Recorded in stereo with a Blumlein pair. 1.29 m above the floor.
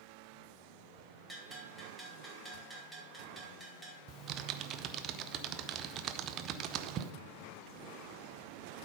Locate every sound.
1.3 s a bell: 5° right, 1.9 m
4.1 s typing on a keyboard: 30° right, 0.5 m